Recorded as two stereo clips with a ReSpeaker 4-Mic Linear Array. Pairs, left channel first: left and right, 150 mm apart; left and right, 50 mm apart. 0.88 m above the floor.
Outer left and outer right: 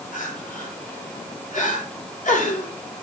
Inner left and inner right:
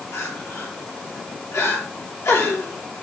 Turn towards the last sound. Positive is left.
turn(degrees=60)  # may be behind; listen again after turning